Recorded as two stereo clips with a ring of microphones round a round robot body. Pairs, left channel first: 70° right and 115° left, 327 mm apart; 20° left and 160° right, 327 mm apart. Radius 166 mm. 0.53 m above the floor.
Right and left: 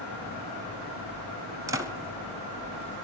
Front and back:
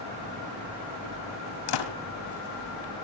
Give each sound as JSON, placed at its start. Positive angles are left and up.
{"t": 1.7, "sound": "a door slam", "azimuth_deg": 30, "distance_m": 2.5}